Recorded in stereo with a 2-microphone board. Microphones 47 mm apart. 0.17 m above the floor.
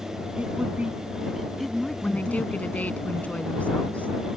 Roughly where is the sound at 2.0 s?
Left.